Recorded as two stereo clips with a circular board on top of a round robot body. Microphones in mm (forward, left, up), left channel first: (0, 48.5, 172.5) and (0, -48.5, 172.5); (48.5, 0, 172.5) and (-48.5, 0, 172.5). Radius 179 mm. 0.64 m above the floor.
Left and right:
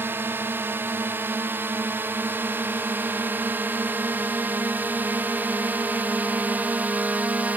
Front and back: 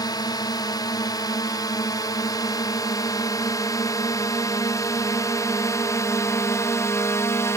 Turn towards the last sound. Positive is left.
turn(degrees=-30)